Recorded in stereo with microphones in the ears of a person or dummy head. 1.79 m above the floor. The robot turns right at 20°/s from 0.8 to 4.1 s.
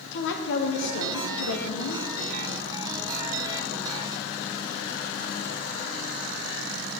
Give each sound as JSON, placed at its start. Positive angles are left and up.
{"t": 0.1, "sound": "a woman speaking", "side_deg": 65, "distance_m": 0.6}